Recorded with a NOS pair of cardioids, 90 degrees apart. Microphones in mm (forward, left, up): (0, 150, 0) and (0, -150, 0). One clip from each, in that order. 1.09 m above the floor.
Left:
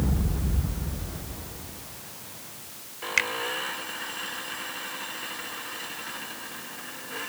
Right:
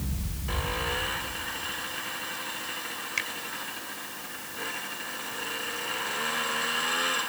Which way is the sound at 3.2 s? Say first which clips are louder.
Left 7 dB; 50° left.